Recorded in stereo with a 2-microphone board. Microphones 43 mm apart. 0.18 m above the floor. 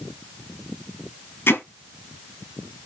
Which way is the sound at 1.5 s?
60° left (ahead or behind).